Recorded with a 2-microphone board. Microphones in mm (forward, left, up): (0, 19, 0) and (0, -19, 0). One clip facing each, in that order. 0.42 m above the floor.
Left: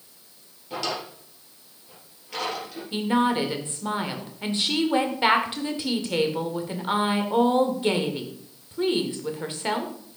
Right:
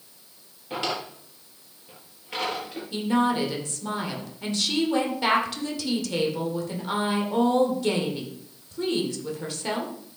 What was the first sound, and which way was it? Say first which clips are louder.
A drawer: right 1 dB; 25° right (ahead or behind).